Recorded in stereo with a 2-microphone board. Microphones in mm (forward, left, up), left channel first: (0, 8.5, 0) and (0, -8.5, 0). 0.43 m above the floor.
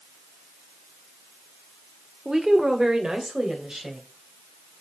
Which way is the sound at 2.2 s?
35° right (ahead or behind).